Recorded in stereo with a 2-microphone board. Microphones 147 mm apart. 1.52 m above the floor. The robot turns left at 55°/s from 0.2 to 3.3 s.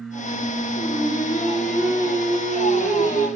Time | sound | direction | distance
0.8 | singing | 45° left | 5 m